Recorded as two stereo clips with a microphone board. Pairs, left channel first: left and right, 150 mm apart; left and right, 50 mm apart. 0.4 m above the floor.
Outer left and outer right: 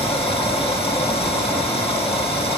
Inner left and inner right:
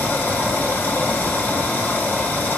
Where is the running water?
35° left (ahead or behind), 8 m.